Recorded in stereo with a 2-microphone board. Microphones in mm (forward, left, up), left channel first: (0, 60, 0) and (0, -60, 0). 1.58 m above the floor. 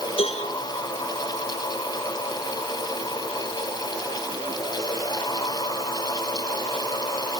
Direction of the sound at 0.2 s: 50° left (ahead or behind).